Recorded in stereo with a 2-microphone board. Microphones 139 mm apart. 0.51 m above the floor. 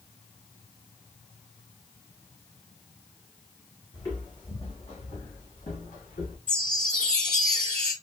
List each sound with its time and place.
3.9 s footsteps: 30° left (ahead or behind), 1.5 m; by 6.4 s 65° left (ahead or behind), 2.5 m
6.5 s a chime: 10° left (ahead or behind), 1.4 m